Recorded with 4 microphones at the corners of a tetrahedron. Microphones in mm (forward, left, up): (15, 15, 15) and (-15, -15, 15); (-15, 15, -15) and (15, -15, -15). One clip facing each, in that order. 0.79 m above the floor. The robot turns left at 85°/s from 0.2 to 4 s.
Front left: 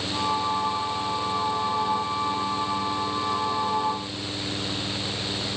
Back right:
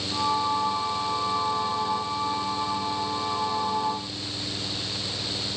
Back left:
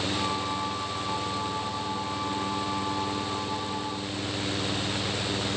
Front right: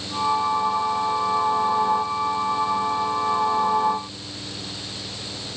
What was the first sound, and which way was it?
Only background noise.